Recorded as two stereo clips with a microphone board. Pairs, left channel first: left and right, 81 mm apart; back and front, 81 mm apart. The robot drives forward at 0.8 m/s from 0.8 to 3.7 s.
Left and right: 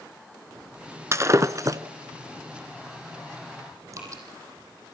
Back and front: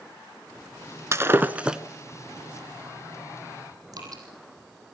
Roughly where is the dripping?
Ahead right.